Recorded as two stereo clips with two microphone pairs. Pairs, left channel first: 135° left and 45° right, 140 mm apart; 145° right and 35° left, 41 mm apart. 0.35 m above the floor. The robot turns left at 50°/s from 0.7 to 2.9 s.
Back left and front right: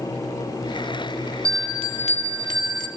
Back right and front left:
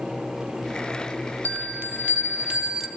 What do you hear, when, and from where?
1.4 s a bell: 25° left, 1.6 m; by 2.9 s 50° right, 1.6 m